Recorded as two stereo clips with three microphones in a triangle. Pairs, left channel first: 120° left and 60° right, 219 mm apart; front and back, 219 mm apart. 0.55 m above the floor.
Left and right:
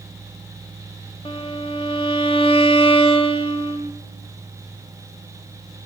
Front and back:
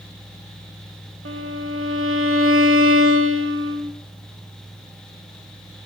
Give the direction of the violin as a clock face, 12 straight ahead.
6 o'clock.